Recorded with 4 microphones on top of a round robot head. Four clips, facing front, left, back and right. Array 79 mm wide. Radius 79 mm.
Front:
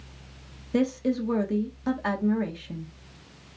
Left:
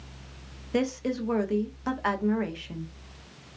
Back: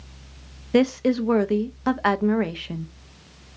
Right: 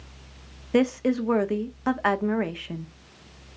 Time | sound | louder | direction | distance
0.7 | a woman speaking | right 6 dB, back 6 dB | 150° right | 0.7 m